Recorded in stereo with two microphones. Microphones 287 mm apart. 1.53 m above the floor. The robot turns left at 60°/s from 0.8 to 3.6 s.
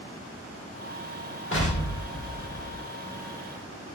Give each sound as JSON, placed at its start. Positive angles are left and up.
{"t": 1.5, "sound": "an explosion", "azimuth_deg": 135, "distance_m": 1.2}